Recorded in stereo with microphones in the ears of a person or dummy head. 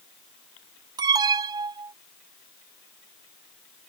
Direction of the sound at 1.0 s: 25° right (ahead or behind).